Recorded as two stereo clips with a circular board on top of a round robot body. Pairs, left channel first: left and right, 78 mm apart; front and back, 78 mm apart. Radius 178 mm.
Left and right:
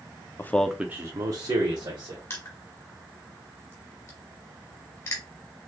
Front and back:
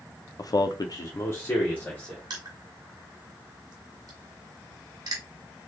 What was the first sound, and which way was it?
A man speaking, 35° left.